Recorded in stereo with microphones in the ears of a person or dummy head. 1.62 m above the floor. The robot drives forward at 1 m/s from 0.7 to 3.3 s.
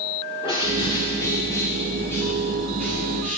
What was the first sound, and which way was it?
A bird, 20° left (ahead or behind).